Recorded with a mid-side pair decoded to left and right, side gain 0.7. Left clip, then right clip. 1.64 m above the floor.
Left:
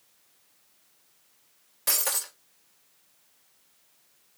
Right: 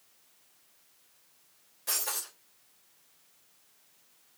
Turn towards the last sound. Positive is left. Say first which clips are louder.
# left 5 dB
turn(degrees=50)